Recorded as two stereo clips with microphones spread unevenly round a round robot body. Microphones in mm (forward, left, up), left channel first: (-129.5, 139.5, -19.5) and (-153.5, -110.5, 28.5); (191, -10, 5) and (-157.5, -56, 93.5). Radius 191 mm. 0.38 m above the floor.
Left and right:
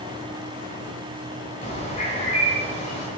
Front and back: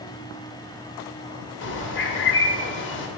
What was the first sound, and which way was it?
A bird, 30° left.